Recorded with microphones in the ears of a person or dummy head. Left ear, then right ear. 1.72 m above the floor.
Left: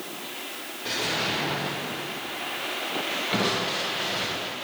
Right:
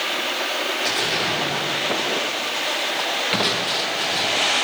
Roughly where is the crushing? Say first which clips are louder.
Right 3 dB; right.